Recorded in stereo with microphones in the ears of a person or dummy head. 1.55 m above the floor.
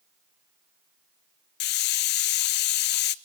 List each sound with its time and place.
1.6 s a hiss: 55° left (ahead or behind), 0.6 m